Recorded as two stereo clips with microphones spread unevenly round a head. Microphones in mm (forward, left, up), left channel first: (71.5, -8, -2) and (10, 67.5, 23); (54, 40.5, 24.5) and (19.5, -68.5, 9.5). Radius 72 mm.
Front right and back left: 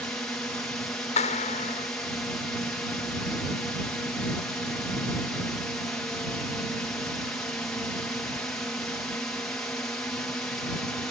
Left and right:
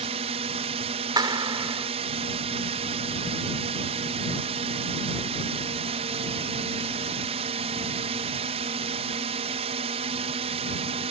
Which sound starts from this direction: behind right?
A drone, at 0.0 s.